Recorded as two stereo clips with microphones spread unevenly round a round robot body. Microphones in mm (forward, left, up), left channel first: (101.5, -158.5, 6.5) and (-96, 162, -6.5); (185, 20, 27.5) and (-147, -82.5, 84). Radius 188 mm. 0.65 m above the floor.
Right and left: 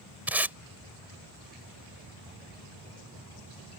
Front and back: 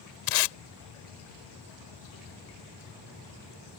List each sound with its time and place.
0.3 s tape being pulled: 35° left